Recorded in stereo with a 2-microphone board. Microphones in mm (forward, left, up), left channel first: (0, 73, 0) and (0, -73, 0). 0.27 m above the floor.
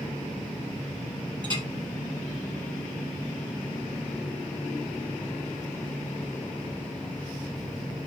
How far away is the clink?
About 5.5 m.